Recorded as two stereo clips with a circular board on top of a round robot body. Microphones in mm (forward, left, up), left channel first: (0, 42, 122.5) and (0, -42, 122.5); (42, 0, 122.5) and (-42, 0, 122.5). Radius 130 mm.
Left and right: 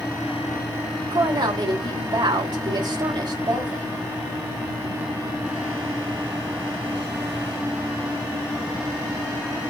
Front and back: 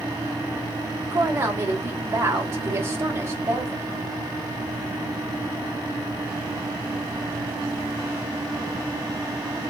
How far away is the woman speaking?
About 3.5 m.